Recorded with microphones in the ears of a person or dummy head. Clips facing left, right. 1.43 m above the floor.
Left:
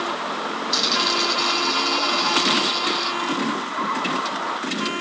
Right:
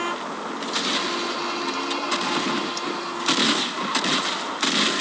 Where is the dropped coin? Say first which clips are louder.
Left 1 dB; 60° left (ahead or behind), 3.5 m.